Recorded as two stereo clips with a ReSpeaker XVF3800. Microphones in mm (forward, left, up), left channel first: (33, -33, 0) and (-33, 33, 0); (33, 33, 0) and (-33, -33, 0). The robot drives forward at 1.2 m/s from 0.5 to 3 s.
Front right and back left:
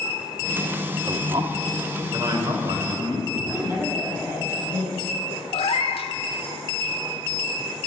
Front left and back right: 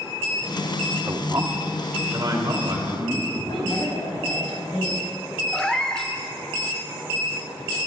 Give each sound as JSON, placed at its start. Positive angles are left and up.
{"t": 1.1, "sound": "a man speaking", "azimuth_deg": 170, "distance_m": 0.8}
{"t": 3.5, "sound": "a woman speaking", "azimuth_deg": 70, "distance_m": 5.0}
{"t": 5.5, "sound": "a cat meowing", "azimuth_deg": -35, "distance_m": 0.9}